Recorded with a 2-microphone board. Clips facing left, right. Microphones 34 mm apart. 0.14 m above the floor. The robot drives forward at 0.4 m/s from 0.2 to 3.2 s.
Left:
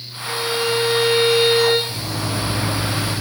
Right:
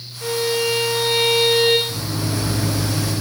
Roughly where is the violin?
Right.